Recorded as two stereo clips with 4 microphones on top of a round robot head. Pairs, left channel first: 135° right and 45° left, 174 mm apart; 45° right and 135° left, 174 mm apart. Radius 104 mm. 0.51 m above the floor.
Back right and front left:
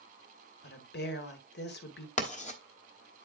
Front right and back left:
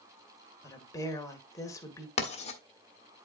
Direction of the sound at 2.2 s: 95° right.